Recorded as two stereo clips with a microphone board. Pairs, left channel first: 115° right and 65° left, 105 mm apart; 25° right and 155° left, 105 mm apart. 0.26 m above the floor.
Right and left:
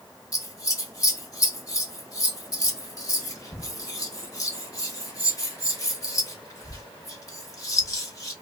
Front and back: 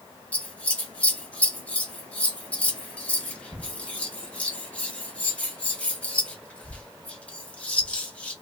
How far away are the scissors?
About 0.9 m.